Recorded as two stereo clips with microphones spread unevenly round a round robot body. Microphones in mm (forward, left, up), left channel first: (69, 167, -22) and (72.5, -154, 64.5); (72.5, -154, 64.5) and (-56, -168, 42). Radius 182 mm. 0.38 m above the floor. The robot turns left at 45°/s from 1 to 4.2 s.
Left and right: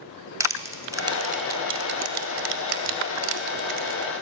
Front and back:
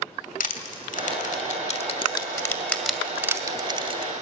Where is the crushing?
Straight ahead, 2.5 m; by 4.1 s 140° right, 2.5 m.